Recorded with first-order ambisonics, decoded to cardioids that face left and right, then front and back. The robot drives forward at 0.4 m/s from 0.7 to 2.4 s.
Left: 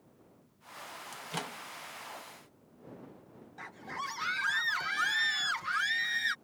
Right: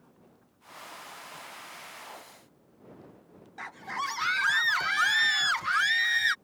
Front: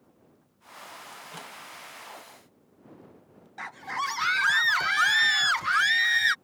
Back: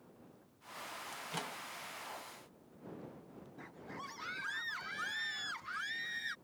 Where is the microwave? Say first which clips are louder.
Left 4 dB, front 1 dB; 95° left; by 1.6 s 100° left.